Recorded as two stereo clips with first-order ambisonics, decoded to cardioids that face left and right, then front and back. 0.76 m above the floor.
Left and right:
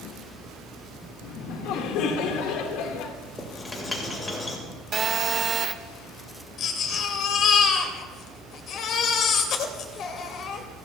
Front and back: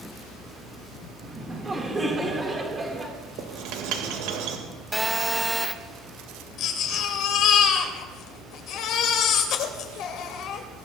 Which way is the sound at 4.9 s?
105° right.